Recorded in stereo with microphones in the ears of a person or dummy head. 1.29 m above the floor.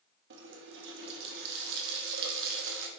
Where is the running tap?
65° right (ahead or behind), 1.3 m.